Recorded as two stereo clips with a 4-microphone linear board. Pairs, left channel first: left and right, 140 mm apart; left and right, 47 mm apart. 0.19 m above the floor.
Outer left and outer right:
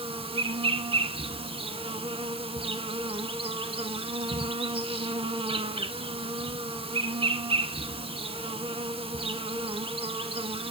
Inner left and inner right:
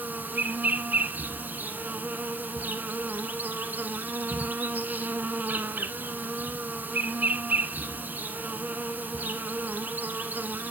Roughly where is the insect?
Right.